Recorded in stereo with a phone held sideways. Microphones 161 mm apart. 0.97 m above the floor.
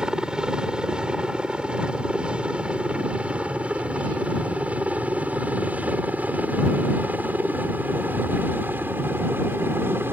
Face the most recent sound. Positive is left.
turn(degrees=-15)  # may be behind; listen again after turning